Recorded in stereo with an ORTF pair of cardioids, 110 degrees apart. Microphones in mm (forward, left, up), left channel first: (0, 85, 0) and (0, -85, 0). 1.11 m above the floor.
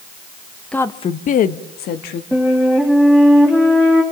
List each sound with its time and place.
0.7 s a woman speaking: 5° left, 0.7 m; by 2.2 s 75° left, 1.7 m
2.3 s a flute: 5° left, 4 m